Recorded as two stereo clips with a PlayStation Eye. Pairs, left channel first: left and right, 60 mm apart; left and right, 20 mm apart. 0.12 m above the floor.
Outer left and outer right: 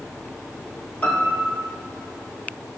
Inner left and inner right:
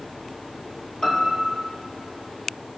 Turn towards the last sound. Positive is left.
turn(degrees=30)  # may be behind; listen again after turning